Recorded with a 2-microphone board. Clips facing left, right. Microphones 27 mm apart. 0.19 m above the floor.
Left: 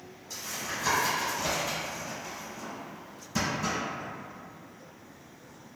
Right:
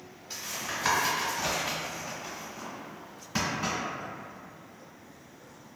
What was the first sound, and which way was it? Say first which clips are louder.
Tapping: right 1 dB; 40° right (ahead or behind).